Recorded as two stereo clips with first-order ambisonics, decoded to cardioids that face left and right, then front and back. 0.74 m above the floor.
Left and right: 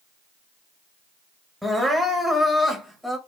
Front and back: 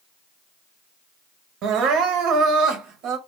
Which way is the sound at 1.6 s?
Straight behind.